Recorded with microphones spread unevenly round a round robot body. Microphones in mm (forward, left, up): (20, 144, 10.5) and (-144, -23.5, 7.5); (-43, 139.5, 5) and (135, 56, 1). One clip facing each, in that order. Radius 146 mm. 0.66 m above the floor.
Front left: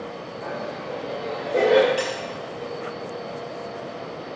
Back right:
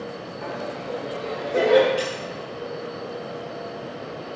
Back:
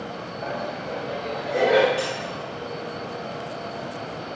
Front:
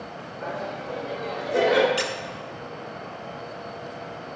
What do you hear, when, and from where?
0.4 s laughter: 85° right, 3 m; by 1.9 s 40° right, 1.9 m
2.0 s a squeak: 30° right, 0.9 m